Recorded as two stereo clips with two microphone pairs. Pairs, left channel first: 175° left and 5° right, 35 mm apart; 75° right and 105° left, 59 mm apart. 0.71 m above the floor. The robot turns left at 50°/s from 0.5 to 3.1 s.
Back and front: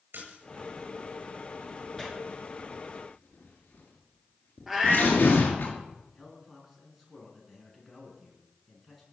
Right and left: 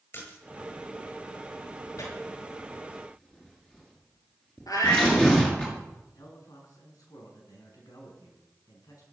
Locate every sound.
0.1 s a splash: 25° right, 9 m
2.0 s tearing paper: 95° right, 6 m; by 5.7 s 150° right, 6 m
4.7 s a cat meowing: 90° right, 5 m
6.2 s a man speaking: 95° right, 6.5 m